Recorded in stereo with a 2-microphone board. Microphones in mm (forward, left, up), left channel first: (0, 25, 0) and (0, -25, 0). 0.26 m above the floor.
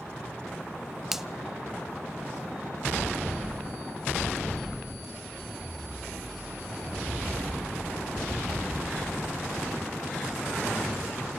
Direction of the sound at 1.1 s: 5° right (ahead or behind).